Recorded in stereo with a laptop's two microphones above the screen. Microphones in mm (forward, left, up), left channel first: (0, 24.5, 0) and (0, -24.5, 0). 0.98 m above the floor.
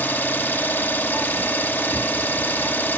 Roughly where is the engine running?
Left.